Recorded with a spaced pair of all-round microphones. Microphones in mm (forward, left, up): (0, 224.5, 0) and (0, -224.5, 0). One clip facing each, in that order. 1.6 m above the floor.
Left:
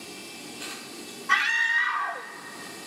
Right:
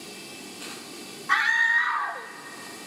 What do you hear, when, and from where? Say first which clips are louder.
1.3 s a scream: right 2 dB; 50° left (ahead or behind), 0.7 m